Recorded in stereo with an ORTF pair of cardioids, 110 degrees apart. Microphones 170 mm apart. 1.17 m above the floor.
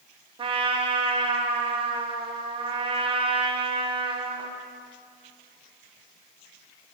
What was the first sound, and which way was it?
A trumpet, 30° right.